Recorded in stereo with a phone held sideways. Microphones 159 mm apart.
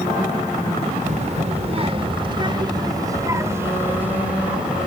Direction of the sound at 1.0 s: 50° right (ahead or behind).